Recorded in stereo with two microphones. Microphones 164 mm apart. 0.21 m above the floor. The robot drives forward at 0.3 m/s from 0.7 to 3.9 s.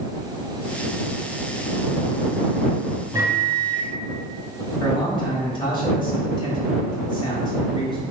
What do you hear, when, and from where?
3.1 s a microwave: 20° right (ahead or behind), 1.0 m
4.8 s a man speaking: 35° left (ahead or behind), 1.1 m